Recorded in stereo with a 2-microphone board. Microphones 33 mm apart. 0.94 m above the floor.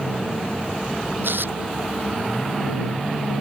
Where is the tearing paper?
90° right.